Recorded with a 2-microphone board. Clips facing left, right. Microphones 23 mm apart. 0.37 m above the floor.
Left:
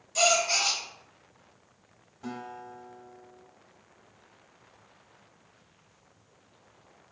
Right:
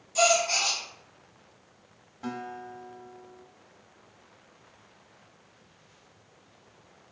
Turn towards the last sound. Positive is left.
turn(degrees=-25)  # may be behind; listen again after turning